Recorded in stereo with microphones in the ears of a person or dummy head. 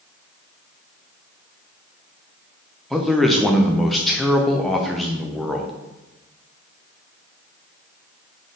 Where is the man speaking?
5° left (ahead or behind), 0.5 m.